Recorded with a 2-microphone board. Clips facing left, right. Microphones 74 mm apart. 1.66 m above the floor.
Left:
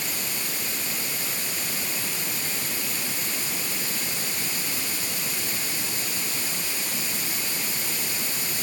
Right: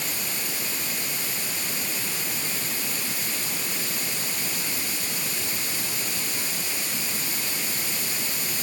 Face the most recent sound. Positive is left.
No sound to turn to.